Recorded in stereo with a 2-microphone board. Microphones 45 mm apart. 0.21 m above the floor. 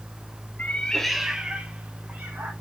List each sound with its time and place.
0.6 s a cat meowing: 40° left (ahead or behind), 0.8 m; by 2.5 s 45° right (ahead or behind), 2.0 m